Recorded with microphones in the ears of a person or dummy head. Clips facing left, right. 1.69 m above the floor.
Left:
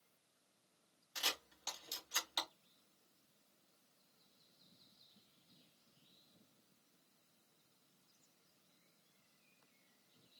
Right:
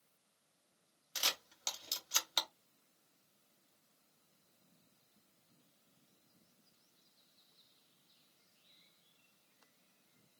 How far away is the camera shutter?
About 1.4 m.